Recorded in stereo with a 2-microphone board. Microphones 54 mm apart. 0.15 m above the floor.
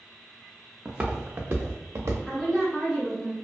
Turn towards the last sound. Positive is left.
turn(degrees=10)  # may be behind; listen again after turning